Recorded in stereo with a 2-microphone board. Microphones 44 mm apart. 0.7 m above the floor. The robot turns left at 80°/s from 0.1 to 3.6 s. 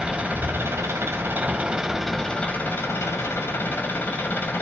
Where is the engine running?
25° right, 1.6 m; by 4.6 s 55° left, 1.6 m.